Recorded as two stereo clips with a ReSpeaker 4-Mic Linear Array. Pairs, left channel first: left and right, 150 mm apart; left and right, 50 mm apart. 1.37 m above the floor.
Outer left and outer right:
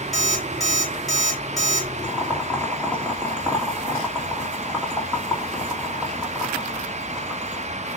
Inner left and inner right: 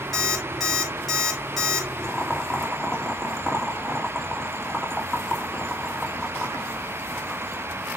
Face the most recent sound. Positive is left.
turn(degrees=10)  # may be behind; listen again after turning